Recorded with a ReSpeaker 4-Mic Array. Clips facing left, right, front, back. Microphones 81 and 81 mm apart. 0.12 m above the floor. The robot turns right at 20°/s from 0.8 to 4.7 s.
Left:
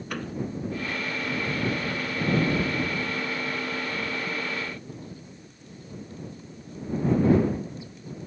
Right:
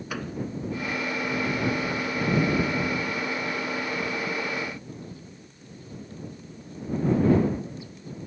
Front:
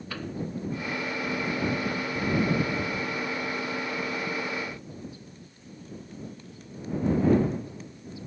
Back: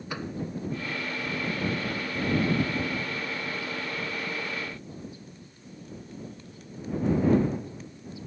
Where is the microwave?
165° right.